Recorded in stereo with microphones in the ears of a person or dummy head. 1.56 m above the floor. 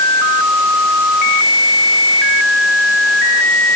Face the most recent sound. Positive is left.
No sound to turn to.